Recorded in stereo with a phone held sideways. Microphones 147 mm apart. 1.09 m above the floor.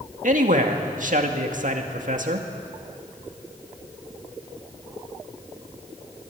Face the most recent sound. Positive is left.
turn(degrees=-65)  # may be behind; listen again after turning